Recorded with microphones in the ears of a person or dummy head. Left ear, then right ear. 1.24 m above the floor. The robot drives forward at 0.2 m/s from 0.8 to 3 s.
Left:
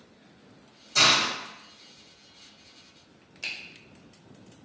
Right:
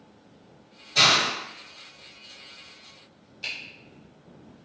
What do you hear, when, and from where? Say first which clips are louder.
0.9 s a hiss: right 2 dB; 80° left, 1.4 m; by 1.3 s 75° left (ahead or behind), 1.4 m
3.4 s a finger snap: right 1 dB; 70° left (ahead or behind), 1.0 m